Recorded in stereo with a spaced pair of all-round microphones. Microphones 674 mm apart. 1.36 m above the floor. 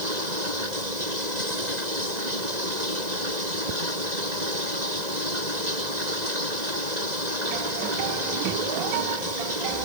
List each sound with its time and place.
0.0 s running water: 75° right (ahead or behind)